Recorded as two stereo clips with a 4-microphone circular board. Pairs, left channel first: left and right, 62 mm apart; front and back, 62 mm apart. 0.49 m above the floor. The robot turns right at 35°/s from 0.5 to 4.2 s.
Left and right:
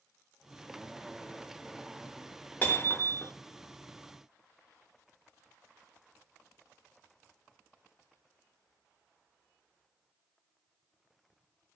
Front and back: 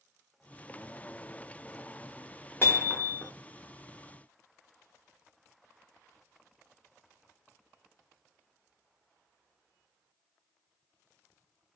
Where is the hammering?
35° left, 0.7 m; by 3.3 s 60° left, 0.7 m.